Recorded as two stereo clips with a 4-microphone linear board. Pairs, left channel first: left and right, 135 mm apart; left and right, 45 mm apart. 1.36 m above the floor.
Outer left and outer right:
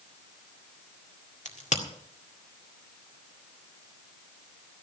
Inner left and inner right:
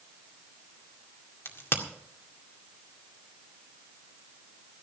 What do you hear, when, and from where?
1.4 s a crack: 60° left (ahead or behind), 2 m